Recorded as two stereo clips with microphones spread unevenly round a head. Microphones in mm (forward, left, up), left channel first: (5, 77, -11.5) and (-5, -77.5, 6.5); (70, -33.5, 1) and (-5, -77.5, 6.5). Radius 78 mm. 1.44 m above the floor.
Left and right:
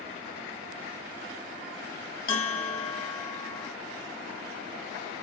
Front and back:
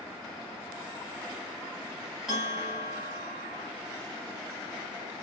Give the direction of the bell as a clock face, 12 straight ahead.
8 o'clock.